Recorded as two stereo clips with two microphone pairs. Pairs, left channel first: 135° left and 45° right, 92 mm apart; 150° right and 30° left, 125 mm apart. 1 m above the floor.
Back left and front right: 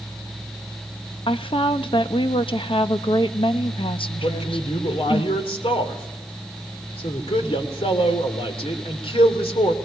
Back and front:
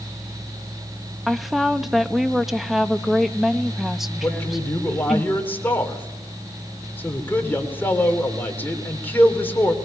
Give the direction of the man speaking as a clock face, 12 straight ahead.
8 o'clock.